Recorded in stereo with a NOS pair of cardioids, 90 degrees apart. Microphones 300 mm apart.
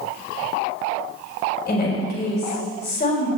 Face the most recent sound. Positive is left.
turn(degrees=35)